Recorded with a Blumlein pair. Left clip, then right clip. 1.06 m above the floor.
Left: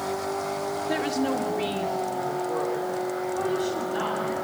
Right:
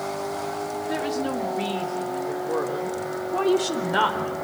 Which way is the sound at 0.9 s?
10° left.